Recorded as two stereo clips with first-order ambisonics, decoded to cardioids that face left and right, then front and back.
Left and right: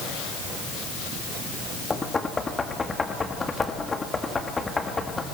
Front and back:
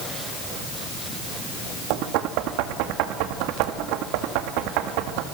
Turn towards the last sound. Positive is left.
turn(degrees=170)